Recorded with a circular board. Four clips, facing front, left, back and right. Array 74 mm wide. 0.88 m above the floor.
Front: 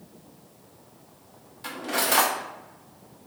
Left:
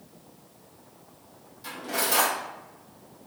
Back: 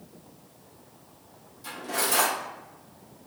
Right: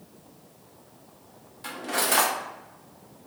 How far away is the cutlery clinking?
About 0.6 m.